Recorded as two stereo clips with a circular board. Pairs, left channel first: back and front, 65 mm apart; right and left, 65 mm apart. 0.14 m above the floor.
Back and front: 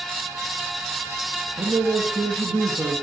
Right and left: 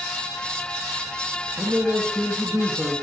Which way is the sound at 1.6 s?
10° left.